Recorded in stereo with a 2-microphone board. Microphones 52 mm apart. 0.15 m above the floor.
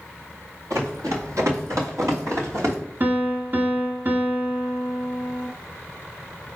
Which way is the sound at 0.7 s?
90° right.